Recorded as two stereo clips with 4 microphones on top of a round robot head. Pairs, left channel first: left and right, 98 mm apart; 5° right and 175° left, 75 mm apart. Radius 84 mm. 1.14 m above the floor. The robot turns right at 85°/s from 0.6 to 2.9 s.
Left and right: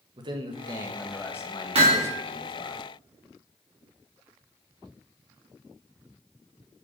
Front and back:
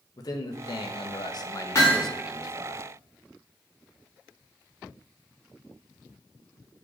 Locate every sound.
0.2 s a man speaking: 45° right, 1.4 m; by 2.8 s 140° left, 1.4 m
1.8 s hammering: 65° right, 2.5 m; by 2.1 s 35° right, 2.5 m